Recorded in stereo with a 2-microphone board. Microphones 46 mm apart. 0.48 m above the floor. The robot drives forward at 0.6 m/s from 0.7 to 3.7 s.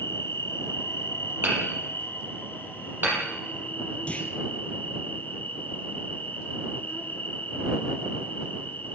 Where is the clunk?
25° left (ahead or behind), 3 m.